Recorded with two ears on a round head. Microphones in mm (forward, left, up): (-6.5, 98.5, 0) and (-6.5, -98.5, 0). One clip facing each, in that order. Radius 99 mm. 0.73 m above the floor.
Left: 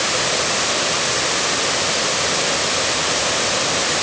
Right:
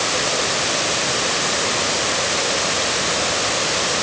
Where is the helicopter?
I don't hear a helicopter.